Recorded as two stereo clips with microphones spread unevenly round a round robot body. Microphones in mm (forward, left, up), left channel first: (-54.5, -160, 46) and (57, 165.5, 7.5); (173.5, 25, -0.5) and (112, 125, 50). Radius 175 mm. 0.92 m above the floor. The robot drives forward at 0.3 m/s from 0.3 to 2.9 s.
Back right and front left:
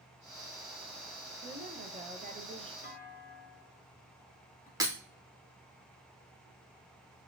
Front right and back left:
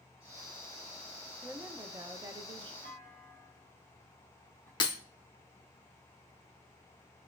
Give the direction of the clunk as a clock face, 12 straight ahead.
6 o'clock.